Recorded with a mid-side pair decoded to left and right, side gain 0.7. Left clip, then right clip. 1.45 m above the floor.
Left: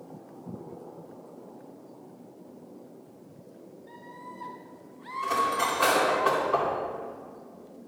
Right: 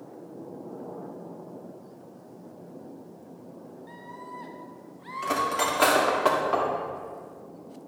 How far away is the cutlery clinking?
About 2 m.